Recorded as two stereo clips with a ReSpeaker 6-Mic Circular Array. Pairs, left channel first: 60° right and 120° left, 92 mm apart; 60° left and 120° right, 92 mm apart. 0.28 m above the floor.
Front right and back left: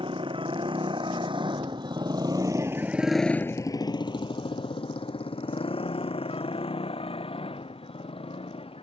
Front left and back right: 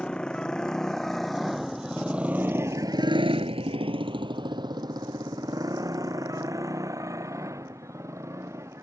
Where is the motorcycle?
140° left; by 8.8 s 60° right.